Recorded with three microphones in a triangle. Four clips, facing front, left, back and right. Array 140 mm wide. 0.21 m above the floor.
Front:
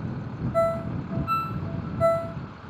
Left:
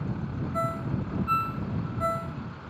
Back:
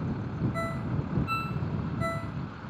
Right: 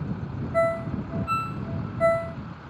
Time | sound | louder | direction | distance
0.5 | a ringtone | right 8 dB, front 9 dB | 45° right | ?